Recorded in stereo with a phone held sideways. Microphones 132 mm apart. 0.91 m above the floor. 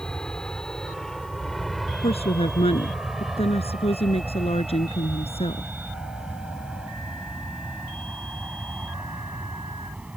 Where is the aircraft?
10° left (ahead or behind); by 10.2 s 10° right (ahead or behind).